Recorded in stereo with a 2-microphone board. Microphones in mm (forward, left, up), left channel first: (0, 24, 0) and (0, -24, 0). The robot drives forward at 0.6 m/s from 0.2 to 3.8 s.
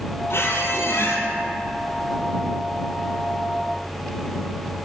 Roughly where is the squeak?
Left.